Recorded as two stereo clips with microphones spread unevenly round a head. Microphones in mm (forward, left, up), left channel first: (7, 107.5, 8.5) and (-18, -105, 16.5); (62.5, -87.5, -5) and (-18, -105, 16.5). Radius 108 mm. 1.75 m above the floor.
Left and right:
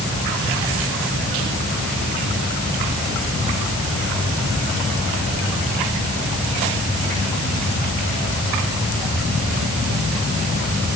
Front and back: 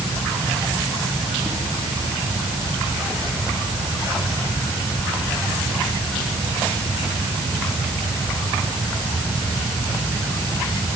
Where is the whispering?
No whispering in this recording.